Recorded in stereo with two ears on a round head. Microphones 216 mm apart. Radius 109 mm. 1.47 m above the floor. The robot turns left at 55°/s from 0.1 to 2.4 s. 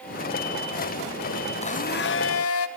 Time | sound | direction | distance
1.6 | a blender | 150° left | 0.8 m